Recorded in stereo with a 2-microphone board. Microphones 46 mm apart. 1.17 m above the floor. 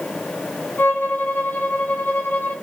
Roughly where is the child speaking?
I don't hear a child speaking.